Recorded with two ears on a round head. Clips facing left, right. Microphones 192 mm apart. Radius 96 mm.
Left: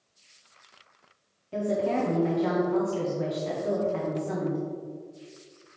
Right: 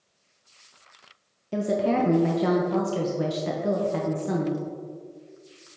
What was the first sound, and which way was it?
A woman speaking, 55° right (ahead or behind).